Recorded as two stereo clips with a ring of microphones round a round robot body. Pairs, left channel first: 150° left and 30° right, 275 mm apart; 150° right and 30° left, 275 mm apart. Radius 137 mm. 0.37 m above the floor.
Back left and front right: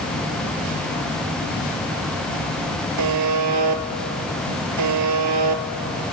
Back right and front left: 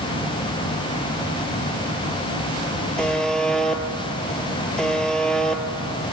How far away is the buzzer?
About 1.6 m.